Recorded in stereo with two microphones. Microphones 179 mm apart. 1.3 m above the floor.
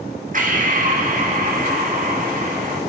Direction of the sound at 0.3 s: 50° right (ahead or behind).